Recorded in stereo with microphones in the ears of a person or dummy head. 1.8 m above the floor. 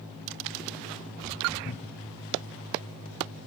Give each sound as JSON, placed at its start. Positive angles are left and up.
{"t": 1.6, "sound": "a cupboard door", "side_deg": 25, "distance_m": 0.6}